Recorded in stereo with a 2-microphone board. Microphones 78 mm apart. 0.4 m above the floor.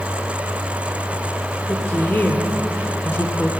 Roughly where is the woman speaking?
Left.